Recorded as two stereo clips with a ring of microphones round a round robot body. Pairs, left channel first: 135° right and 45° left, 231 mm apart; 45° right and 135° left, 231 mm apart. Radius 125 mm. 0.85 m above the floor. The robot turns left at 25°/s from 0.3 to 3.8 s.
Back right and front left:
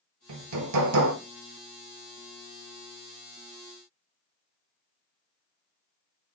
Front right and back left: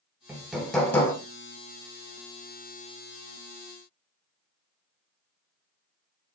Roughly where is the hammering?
Ahead left.